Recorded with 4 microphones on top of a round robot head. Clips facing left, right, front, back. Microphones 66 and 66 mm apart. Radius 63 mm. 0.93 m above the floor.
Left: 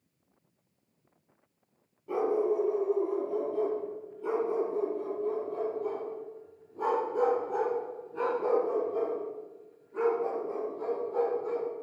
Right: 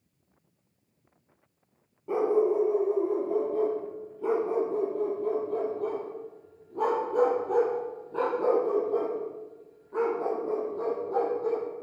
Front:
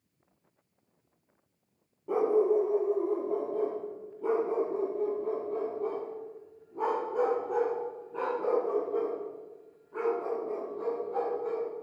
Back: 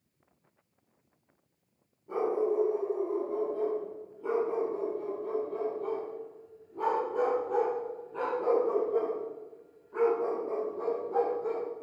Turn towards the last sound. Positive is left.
turn(degrees=-100)